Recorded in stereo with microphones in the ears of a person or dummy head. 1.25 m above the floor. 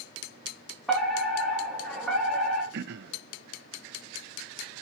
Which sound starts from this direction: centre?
A fire alarm, at 0.9 s.